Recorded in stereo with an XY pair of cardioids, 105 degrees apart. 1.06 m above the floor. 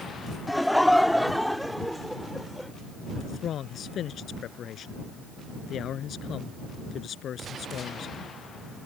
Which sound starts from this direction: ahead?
Laughter, at 0.5 s.